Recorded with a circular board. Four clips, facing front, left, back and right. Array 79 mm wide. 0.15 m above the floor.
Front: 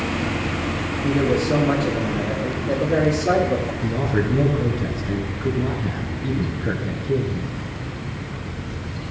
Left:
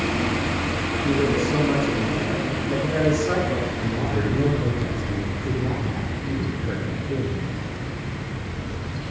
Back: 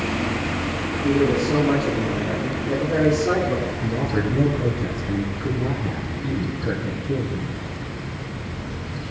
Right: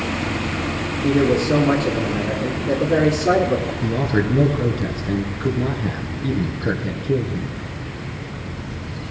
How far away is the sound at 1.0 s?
About 3 m.